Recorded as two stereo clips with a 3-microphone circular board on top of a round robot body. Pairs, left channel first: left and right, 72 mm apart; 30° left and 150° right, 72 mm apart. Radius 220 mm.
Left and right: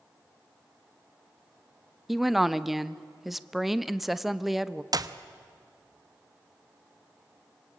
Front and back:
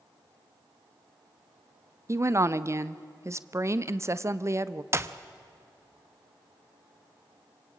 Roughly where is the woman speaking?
Behind.